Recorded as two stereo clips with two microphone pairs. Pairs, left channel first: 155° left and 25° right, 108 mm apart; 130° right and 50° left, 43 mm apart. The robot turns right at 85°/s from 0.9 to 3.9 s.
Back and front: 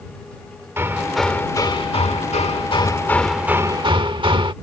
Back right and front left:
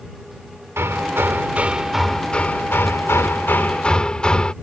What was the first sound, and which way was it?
Hammering, 40° left.